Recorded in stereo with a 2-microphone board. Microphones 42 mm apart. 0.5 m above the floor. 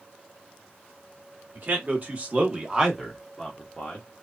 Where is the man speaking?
50° right (ahead or behind), 1.3 m; by 4.1 s 30° left (ahead or behind), 1.0 m.